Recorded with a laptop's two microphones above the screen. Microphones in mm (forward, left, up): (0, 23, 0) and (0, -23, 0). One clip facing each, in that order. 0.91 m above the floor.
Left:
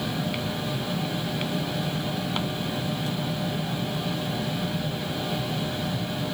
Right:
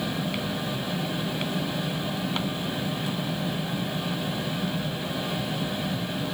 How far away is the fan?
About 0.9 m.